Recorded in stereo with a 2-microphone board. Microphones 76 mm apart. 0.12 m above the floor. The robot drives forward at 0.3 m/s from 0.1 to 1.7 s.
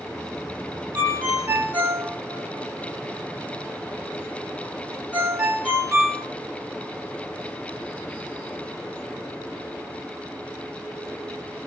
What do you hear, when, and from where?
0.9 s a ringtone: 20° right (ahead or behind), 0.6 m